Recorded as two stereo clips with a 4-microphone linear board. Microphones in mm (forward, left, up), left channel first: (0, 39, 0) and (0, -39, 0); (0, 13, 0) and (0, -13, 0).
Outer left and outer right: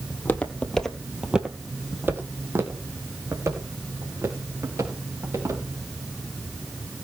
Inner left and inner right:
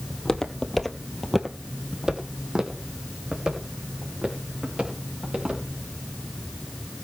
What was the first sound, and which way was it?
Footsteps, 25° left (ahead or behind).